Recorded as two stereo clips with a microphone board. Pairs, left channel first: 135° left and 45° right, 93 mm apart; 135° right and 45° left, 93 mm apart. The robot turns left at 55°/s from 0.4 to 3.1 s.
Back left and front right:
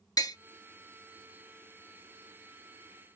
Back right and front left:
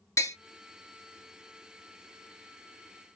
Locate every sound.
0.2 s tapping: 175° left, 0.8 m